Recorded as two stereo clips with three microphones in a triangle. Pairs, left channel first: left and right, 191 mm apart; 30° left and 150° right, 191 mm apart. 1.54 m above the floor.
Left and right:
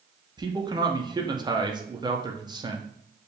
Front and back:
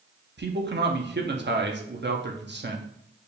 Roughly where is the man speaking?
Behind.